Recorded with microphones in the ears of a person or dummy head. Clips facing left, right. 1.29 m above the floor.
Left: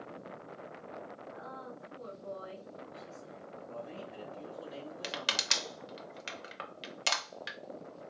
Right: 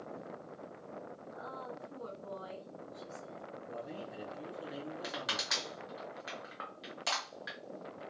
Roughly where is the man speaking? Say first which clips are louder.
Even; centre.